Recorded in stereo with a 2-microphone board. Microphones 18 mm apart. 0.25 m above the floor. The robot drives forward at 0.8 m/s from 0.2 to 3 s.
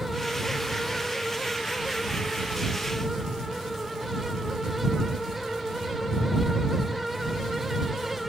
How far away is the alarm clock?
No alarm clock in this recording.